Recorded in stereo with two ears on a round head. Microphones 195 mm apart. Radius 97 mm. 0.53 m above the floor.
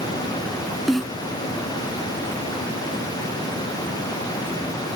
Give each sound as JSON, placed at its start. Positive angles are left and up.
{"t": 0.9, "sound": "a snare drum", "side_deg": 0}